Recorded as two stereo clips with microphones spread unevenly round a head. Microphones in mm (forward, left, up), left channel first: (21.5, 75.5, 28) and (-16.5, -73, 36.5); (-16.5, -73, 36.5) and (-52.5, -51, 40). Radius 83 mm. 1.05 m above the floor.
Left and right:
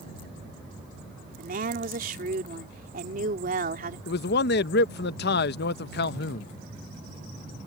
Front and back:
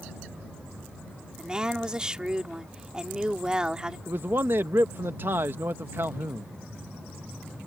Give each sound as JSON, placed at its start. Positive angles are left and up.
{"t": 1.4, "sound": "a woman speaking", "azimuth_deg": -140}
{"t": 4.1, "sound": "a man speaking", "azimuth_deg": 90}